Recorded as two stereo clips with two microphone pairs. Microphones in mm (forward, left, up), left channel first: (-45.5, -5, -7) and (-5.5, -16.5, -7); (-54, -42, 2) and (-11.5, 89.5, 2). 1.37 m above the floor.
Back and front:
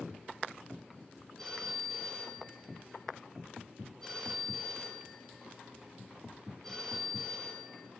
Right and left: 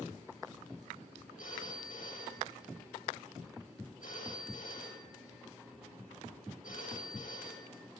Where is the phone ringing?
115° right, 5.5 m.